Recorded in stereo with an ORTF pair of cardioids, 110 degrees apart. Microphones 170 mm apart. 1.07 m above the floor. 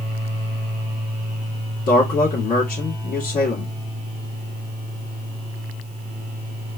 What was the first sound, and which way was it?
A man speaking, 55° left.